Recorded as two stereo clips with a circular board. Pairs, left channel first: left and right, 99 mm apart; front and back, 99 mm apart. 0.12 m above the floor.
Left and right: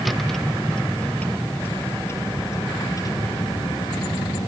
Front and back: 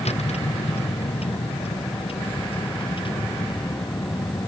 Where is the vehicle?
Straight ahead; by 4.5 s 45° left.